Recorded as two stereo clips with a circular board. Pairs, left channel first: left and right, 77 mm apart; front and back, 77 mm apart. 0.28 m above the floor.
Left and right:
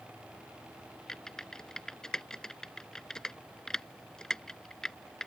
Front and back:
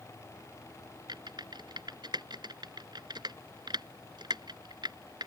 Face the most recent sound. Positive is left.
turn(degrees=170)